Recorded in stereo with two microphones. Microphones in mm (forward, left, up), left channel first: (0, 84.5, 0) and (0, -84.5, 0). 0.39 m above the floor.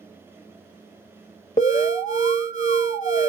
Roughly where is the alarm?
Left.